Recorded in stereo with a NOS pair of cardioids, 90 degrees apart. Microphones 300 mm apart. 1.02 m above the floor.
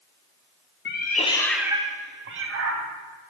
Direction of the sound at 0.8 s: 40° left.